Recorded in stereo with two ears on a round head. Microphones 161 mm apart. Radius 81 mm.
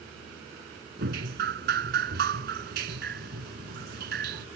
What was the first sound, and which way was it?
Dripping, 60° right (ahead or behind).